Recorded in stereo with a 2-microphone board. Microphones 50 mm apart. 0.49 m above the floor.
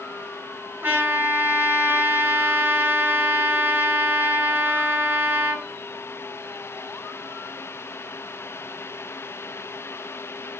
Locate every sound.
0.8 s a trumpet: 40° right (ahead or behind), 3 m